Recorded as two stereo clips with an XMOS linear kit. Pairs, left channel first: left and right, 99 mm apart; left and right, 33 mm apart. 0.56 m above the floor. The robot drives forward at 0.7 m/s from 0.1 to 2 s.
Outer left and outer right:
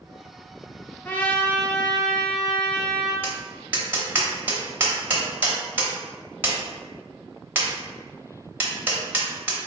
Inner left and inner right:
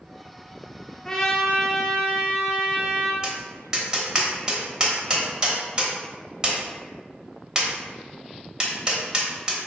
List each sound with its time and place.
1.1 s a trumpet: 15° left (ahead or behind), 0.5 m; by 3.1 s 10° left (ahead or behind), 1.0 m
3.2 s tapping: 20° right (ahead or behind), 0.8 m